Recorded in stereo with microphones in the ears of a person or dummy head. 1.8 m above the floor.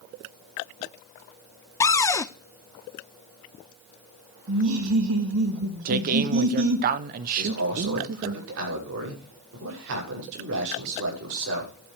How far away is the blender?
I don't hear a blender.